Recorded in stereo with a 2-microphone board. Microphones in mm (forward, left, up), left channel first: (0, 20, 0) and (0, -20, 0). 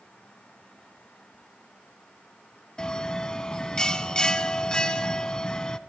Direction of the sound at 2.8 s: 20° left (ahead or behind).